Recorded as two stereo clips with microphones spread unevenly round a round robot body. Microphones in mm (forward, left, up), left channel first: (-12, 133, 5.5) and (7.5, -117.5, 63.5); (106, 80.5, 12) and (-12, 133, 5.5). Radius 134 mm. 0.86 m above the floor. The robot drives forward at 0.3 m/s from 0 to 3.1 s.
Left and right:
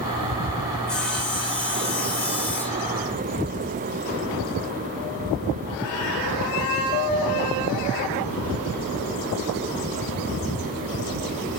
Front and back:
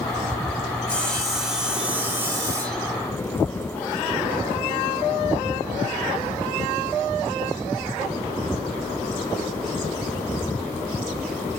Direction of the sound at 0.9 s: 50° left.